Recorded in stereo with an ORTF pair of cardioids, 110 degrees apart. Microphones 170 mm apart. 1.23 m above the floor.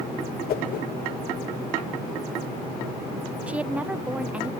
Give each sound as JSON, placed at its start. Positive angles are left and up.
{"t": 0.5, "sound": "a whoosh", "azimuth_deg": 65, "distance_m": 1.3}
{"t": 3.5, "sound": "a woman speaking", "azimuth_deg": -10, "distance_m": 0.5}